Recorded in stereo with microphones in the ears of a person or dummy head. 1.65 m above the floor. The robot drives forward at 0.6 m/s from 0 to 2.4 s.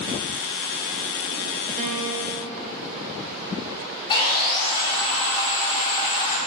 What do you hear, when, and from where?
1.8 s a piano: 40° right (ahead or behind), 0.8 m; by 2.4 s 65° right (ahead or behind), 0.6 m
4.1 s sawing: 30° left (ahead or behind), 2 m